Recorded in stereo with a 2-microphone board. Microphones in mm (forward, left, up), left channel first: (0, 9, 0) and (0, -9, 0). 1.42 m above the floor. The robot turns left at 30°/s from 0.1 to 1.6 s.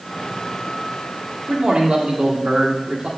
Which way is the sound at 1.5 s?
80° right.